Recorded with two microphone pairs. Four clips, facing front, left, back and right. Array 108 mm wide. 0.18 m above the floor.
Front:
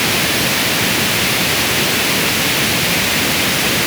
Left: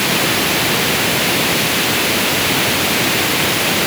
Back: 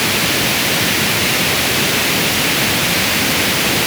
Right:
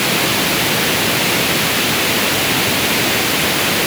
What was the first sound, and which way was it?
Only background noise.